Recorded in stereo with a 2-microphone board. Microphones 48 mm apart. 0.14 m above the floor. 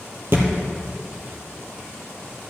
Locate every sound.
0.3 s a thud: 50° right (ahead or behind), 1.9 m